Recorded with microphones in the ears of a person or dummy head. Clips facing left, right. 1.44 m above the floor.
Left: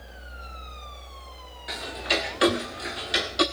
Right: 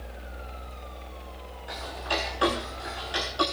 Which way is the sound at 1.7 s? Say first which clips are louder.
Left 3 dB; 15° left (ahead or behind).